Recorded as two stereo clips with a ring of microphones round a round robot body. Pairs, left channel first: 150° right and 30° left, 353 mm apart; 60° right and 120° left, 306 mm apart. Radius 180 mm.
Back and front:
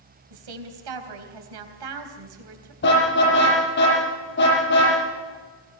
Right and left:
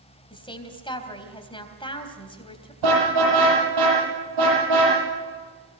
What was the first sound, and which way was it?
A woman speaking, 15° left.